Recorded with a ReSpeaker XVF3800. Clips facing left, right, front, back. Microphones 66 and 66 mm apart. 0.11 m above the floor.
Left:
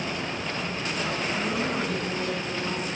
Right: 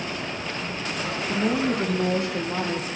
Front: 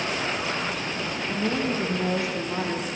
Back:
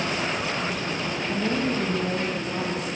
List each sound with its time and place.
1.3 s a woman speaking: 90° right, 5.5 m; by 2.9 s 75° right, 6 m